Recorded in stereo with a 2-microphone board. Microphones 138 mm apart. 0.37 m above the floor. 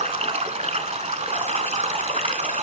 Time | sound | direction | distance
0.0 | running water | 60° right (ahead or behind) | 0.8 m